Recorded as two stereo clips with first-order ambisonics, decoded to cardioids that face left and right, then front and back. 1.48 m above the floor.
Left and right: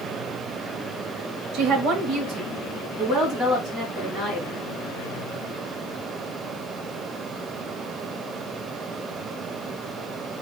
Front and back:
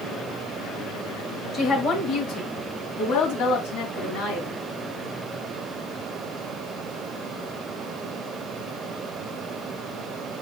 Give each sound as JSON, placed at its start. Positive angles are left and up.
{"t": 1.5, "sound": "a woman speaking", "azimuth_deg": -65, "distance_m": 1.8}